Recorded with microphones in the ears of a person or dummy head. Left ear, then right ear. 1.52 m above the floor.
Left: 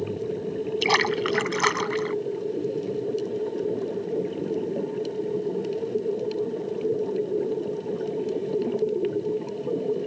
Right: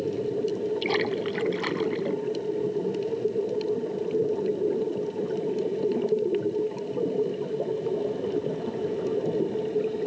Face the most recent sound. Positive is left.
turn(degrees=50)  # may be behind; listen again after turning